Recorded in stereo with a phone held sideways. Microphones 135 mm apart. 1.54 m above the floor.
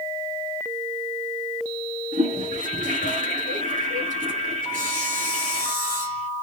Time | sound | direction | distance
2.1 | a toilet flushing | 85° right | 9 m
4.7 | sawing | 80° right | 7.5 m